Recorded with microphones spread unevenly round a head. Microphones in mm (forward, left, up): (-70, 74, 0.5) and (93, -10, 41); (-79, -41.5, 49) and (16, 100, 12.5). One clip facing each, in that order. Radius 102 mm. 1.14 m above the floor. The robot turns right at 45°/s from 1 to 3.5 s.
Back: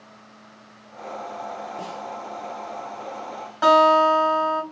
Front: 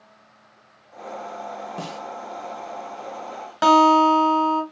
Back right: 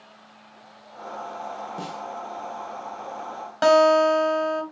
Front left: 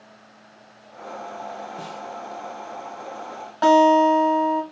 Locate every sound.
1.8 s a snare drum: 50° right, 1.2 m; by 2.0 s 40° right, 1.2 m
3.6 s a guitar: 60° right, 2 m